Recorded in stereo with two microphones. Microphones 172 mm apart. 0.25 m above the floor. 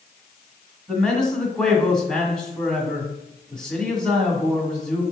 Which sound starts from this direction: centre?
A man speaking, at 0.9 s.